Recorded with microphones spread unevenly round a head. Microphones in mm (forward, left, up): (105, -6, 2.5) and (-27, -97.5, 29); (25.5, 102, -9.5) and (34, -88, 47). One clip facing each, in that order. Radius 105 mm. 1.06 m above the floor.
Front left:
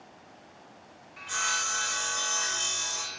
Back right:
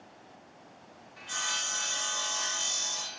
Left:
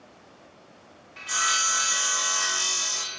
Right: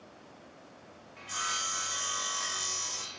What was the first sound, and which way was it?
Sawing, 115° left.